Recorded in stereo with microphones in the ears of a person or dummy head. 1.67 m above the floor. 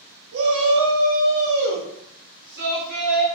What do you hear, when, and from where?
0.3 s a shout: 75° right (ahead or behind), 0.9 m; by 3.3 s 50° right (ahead or behind), 2.5 m